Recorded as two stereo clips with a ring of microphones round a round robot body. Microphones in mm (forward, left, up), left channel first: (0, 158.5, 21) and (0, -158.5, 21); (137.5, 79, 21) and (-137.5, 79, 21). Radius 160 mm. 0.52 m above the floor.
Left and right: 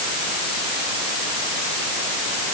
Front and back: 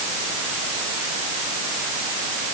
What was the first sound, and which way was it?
Only background noise.